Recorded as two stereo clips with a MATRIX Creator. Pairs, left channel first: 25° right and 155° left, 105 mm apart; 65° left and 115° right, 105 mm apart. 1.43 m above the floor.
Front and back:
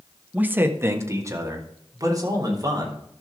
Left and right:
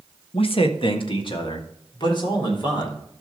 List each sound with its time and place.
0.3 s a man speaking: 80° left, 1.0 m; by 3.0 s 105° left, 4 m